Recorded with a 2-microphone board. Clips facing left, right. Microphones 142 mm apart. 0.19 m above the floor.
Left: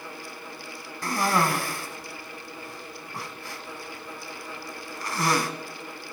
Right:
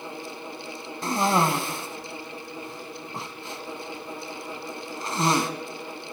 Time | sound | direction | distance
1.0 | a cough | 20° right (ahead or behind) | 1.2 m